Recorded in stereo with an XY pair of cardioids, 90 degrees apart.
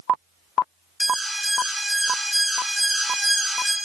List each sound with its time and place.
1.0 s an alarm: 10° right, 4.5 m